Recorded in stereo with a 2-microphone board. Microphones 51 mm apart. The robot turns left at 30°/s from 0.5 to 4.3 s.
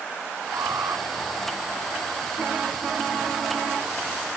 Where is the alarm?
60° right (ahead or behind); by 1.1 s 80° right.